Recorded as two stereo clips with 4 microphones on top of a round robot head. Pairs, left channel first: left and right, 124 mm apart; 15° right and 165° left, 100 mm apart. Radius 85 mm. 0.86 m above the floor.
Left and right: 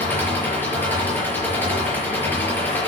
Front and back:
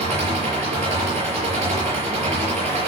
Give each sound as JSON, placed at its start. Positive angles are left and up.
{"t": 0.0, "sound": "an engine running", "azimuth_deg": 165, "distance_m": 6.0}